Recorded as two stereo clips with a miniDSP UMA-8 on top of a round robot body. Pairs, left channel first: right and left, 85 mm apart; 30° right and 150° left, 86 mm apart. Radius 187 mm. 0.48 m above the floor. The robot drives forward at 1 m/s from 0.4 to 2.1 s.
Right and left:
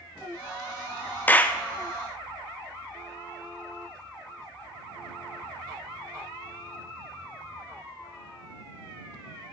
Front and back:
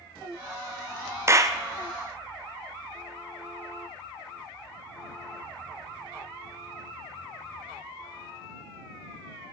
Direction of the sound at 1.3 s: 155° right.